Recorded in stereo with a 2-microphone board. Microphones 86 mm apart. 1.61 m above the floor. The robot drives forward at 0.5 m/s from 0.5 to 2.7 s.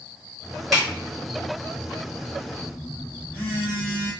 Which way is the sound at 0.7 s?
Centre (ahead or behind).